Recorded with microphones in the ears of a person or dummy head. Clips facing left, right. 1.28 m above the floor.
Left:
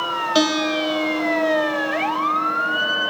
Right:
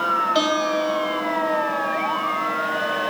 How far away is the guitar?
About 1.2 m.